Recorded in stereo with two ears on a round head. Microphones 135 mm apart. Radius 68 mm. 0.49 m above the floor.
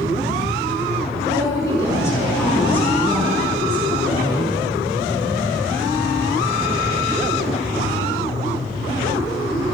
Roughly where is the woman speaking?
Left.